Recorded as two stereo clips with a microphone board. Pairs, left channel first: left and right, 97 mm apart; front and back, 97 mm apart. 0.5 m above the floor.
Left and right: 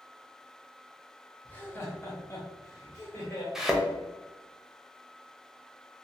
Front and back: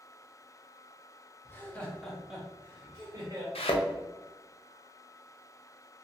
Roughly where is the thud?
Ahead.